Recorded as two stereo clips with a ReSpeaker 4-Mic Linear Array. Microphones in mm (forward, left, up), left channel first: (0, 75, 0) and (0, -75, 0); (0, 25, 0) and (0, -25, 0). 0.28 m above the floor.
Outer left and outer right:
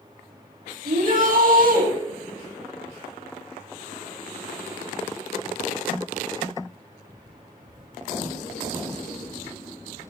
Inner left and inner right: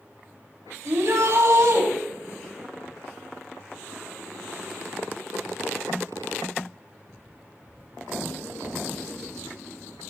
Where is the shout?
70° right (ahead or behind), 9 m.